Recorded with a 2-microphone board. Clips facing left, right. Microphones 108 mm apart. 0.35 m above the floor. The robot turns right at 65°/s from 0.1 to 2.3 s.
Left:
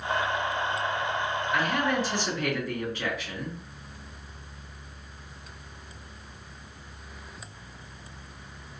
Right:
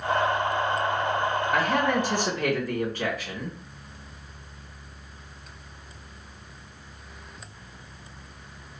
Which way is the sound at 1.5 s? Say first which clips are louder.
Right 2 dB; 100° right.